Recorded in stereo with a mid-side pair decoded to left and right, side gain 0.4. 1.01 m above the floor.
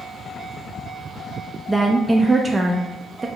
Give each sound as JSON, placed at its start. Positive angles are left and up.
{"t": 1.7, "sound": "a woman speaking", "azimuth_deg": -25, "distance_m": 0.5}